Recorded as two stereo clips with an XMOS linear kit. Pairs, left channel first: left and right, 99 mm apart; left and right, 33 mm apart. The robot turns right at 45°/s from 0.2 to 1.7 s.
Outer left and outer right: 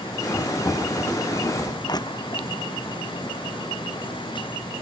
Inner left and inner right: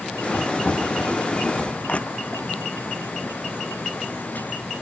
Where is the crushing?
40° left (ahead or behind).